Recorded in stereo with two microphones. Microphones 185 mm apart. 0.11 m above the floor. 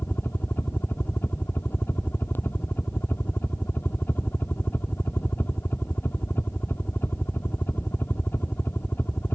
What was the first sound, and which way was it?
A helicopter, 10° left (ahead or behind).